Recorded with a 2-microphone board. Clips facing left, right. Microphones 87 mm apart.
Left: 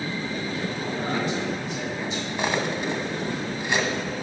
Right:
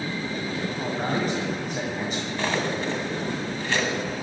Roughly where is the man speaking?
Right.